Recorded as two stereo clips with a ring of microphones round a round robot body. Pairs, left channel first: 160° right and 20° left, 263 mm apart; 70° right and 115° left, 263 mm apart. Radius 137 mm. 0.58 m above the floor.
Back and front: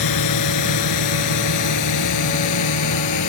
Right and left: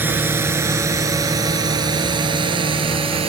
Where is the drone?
165° right; by 3.3 s 175° right.